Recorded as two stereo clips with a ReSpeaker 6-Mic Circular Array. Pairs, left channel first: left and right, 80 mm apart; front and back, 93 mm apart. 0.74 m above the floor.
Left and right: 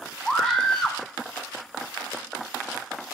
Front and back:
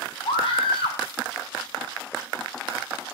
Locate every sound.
0.2 s a scream: 5° right, 5.5 m